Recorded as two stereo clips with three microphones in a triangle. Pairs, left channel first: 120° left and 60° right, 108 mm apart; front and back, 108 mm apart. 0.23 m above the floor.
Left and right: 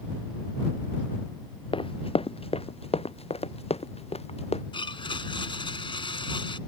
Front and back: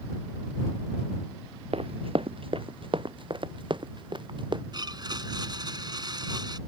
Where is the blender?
140° left.